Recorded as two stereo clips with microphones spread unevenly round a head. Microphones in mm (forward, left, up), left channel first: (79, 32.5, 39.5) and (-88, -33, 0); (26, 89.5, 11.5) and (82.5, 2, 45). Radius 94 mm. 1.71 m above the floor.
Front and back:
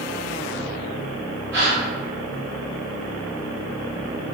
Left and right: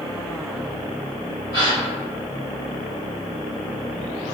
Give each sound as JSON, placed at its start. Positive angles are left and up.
{"t": 1.5, "sound": "a gasp", "azimuth_deg": -155, "distance_m": 1.5}